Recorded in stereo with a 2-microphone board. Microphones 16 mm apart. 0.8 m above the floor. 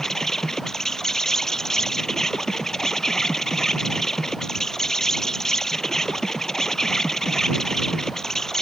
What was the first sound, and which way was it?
An insect, 30° left (ahead or behind).